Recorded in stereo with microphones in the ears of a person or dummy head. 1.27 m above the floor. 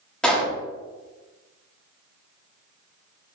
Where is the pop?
10° left (ahead or behind), 1.6 m.